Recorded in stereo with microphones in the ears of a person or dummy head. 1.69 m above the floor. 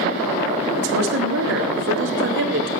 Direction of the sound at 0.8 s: 80° right.